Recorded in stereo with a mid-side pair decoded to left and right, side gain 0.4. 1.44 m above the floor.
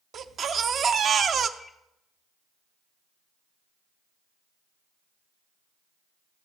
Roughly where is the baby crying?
Ahead right.